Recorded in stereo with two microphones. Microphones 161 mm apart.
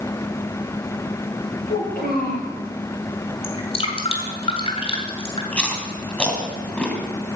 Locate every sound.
1.7 s a child speaking: 70° left (ahead or behind), 8 m
3.4 s dripping: 35° left (ahead or behind), 2.5 m
5.5 s chewing: 5° left (ahead or behind), 2 m